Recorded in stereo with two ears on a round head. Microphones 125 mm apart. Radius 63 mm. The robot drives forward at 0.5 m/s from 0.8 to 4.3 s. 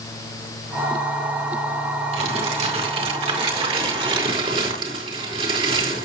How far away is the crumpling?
About 3.5 m.